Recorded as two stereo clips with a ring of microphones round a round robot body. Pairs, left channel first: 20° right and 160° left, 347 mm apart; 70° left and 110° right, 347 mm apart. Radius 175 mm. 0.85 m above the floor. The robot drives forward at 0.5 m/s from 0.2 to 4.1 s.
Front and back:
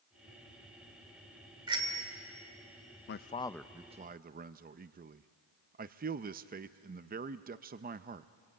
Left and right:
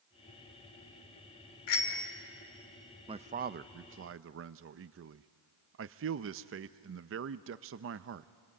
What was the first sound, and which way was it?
A bicycle bell, 80° left.